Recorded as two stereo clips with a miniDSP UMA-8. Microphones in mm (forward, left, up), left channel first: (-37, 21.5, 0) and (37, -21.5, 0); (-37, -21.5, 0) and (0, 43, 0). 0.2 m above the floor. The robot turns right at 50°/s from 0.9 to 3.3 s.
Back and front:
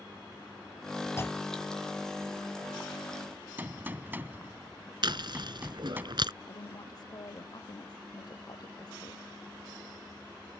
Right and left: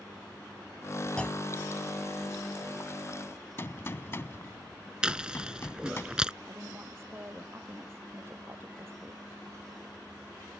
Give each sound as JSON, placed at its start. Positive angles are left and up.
{"t": 1.2, "sound": "a clunk", "azimuth_deg": 175}
{"t": 3.6, "sound": "a gunshot", "azimuth_deg": -85}
{"t": 5.0, "sound": "chewing", "azimuth_deg": -15}
{"t": 6.5, "sound": "a woman speaking", "azimuth_deg": 115}